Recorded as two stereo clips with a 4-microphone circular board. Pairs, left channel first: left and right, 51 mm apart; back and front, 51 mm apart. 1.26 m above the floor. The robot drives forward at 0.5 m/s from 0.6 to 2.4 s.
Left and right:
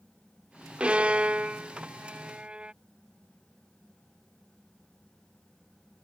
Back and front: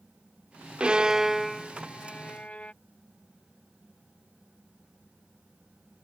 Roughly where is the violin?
Ahead right.